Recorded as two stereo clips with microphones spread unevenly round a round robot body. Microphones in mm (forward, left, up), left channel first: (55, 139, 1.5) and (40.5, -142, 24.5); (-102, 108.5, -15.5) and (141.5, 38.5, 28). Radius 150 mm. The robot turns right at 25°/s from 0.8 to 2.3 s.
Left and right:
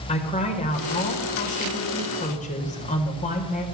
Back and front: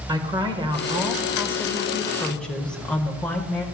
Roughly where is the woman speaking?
Ahead left.